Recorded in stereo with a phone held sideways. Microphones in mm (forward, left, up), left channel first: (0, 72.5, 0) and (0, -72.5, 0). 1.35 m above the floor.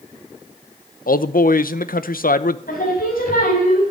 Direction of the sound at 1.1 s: 75° left (ahead or behind).